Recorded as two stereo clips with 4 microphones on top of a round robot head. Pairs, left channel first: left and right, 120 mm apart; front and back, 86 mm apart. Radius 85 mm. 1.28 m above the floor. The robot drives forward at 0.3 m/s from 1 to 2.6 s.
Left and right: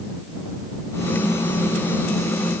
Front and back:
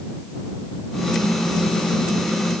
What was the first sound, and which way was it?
Only background noise.